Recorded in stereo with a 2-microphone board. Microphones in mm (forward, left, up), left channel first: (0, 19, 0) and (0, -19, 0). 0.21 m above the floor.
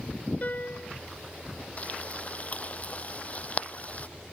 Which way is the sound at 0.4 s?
45° left (ahead or behind).